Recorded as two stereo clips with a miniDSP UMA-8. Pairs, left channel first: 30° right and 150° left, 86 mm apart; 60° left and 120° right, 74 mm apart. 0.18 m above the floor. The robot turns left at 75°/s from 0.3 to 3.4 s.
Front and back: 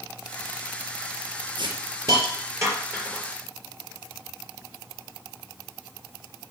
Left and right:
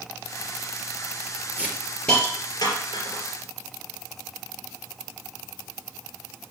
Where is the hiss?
175° left, 3.5 m; by 3.2 s 50° left, 3.5 m.